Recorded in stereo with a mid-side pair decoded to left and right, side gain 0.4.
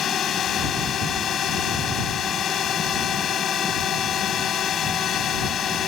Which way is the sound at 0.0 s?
65° left.